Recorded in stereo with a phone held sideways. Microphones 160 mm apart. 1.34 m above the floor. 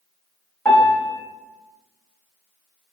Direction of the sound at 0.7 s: 15° left (ahead or behind).